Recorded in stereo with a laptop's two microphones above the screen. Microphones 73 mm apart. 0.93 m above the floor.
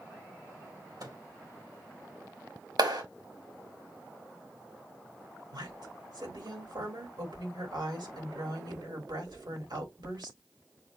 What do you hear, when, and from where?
1.0 s a microwave: 65° right (ahead or behind), 1.9 m
2.8 s a clap: 75° right (ahead or behind), 3.5 m
5.5 s a woman speaking: 75° right (ahead or behind), 3 m